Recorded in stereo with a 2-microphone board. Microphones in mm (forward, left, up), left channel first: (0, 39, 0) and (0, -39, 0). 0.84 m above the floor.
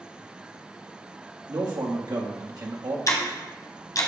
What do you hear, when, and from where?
1.5 s a man speaking: 60° right (ahead or behind), 1.5 m
3.1 s ticking: 45° left (ahead or behind), 1.4 m